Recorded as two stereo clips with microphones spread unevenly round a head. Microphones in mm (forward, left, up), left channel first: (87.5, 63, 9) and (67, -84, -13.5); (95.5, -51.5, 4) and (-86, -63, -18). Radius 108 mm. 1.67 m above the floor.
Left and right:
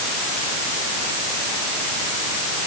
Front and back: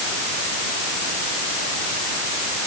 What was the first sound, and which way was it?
Only background noise.